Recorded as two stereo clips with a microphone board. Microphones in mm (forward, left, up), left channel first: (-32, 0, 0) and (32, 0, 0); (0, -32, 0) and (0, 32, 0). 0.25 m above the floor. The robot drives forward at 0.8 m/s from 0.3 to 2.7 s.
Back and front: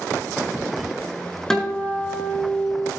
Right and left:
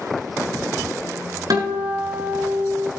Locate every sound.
1.5 s a guitar: 95° left, 4 m; by 2.9 s 110° left, 4 m